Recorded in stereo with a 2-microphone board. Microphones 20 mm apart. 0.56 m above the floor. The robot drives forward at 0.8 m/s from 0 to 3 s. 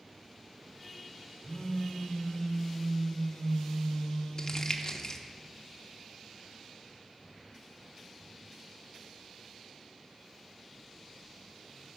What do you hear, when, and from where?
1.4 s a phone buzzing: 70° left (ahead or behind), 3 m; by 4.6 s 55° left (ahead or behind), 3.5 m
4.4 s crumpling: 40° left (ahead or behind), 0.7 m